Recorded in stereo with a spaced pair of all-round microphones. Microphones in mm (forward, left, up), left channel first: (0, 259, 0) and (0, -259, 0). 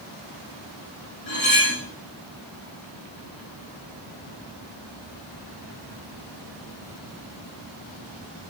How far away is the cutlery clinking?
About 4.5 m.